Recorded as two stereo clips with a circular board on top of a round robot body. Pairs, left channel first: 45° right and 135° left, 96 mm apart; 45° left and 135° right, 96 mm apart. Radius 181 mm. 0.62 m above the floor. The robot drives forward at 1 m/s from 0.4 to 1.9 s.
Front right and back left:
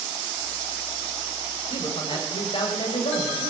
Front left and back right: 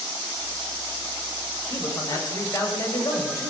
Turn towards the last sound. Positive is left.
turn(degrees=-10)